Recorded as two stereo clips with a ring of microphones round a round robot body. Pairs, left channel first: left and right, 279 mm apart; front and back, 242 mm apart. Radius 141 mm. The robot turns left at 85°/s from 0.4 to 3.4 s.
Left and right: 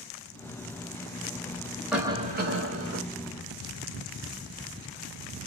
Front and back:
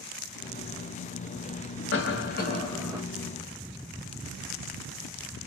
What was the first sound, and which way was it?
A cough, straight ahead.